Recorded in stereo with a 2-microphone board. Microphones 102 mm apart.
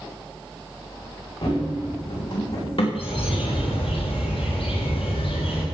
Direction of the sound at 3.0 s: 65° left (ahead or behind).